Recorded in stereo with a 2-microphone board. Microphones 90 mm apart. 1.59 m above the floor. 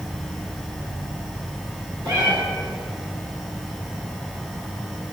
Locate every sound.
0.0 s an insect: 40° right (ahead or behind), 5 m
2.0 s a cat meowing: 60° right (ahead or behind), 5 m